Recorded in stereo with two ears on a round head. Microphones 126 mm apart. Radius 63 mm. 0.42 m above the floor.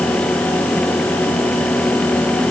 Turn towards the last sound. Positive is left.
No sound to turn to.